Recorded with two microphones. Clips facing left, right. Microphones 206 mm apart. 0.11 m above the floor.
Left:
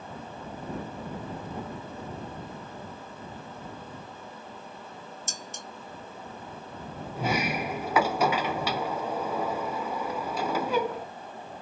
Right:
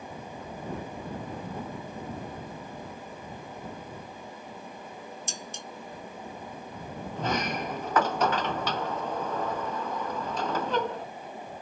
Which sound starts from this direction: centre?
A sliding door, at 7.2 s.